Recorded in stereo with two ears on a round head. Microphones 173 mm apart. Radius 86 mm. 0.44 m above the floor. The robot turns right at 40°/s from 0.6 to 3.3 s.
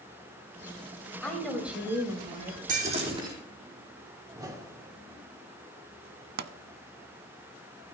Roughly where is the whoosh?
Centre.